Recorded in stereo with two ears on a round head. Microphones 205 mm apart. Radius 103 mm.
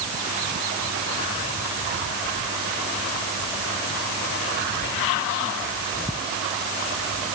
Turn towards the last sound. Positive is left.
No sound to turn to.